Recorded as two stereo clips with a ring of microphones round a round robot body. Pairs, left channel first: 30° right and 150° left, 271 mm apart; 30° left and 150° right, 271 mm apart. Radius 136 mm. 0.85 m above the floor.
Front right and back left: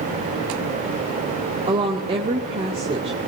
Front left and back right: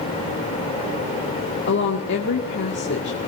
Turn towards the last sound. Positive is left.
turn(degrees=80)